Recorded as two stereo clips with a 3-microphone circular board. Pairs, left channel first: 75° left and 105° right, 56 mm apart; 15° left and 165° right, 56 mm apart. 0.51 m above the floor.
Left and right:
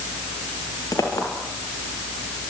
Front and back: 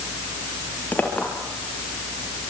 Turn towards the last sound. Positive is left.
turn(degrees=75)